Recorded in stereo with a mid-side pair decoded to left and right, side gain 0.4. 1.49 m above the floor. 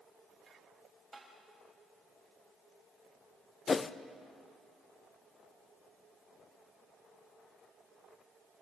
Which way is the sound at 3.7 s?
40° left.